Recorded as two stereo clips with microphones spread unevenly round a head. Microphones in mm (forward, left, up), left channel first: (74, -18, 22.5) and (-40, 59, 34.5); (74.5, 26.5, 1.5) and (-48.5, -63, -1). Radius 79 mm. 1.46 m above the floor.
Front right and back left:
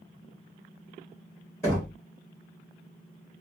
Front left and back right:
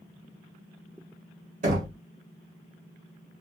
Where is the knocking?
110° right, 1.2 m.